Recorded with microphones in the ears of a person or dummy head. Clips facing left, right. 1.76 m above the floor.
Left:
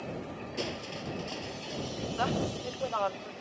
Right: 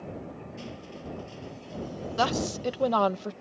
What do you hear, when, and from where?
0.6 s crushing: 75° left (ahead or behind)
2.2 s a woman speaking: 60° right (ahead or behind)